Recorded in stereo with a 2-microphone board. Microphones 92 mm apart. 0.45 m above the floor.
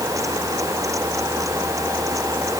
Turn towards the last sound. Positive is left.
No sound to turn to.